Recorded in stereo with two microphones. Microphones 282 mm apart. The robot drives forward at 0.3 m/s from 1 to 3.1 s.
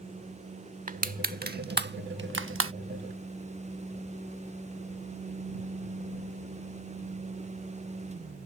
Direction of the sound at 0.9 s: 30° right (ahead or behind).